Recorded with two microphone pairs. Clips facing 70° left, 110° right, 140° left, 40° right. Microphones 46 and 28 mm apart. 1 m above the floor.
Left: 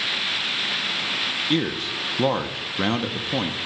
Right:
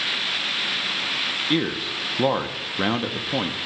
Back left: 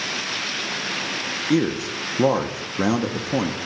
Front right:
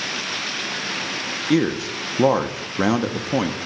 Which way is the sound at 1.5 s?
40° right.